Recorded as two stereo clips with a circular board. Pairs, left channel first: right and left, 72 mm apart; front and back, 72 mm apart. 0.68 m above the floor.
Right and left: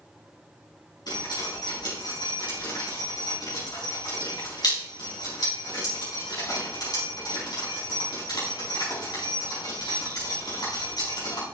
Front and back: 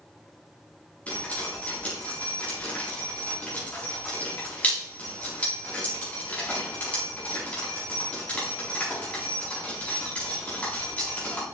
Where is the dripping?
70° right, 4.5 m.